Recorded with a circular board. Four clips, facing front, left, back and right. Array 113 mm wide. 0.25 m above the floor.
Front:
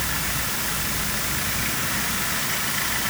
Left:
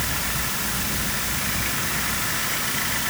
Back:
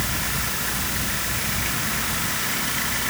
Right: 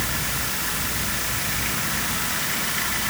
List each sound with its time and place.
Only background noise.